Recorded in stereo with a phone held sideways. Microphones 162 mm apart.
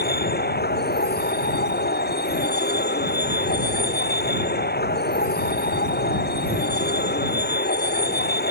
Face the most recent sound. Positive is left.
turn(degrees=80)